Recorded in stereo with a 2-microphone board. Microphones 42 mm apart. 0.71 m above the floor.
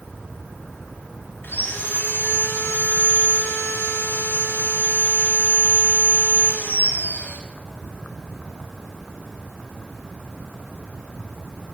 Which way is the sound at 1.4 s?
50° left (ahead or behind).